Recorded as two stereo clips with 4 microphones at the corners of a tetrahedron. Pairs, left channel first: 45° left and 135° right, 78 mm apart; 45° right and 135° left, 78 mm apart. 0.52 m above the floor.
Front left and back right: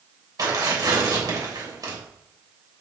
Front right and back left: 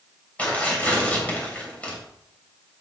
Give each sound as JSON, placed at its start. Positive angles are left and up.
{"t": 0.4, "sound": "tearing paper", "azimuth_deg": -115, "distance_m": 3.0}